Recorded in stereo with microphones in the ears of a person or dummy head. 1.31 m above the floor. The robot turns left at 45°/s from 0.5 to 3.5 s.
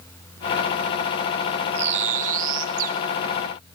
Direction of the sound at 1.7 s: 55° right.